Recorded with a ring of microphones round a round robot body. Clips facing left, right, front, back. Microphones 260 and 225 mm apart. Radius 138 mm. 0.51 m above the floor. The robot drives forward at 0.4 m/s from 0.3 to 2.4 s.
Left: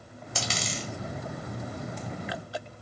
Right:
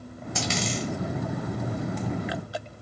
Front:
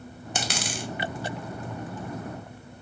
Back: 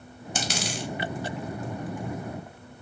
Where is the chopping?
I don't hear chopping.